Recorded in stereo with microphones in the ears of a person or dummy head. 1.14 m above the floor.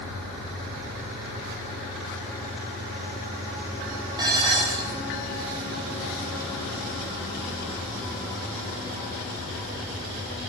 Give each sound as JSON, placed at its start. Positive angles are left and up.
{"t": 4.2, "sound": "dishes clattering", "side_deg": -20, "distance_m": 4.5}